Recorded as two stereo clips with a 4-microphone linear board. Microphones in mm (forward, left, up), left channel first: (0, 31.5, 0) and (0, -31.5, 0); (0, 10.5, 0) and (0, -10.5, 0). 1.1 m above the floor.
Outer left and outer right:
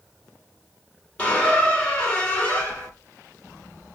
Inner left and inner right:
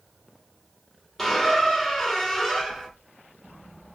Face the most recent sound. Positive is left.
turn(degrees=20)  # may be behind; listen again after turning